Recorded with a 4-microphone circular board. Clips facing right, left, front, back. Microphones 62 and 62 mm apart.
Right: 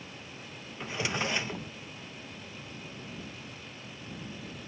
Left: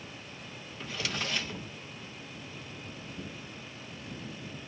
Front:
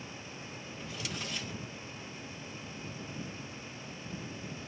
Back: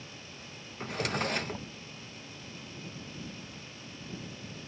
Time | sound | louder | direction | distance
0.8 | a drawer | right 4 dB, back 10 dB | 155° right | ?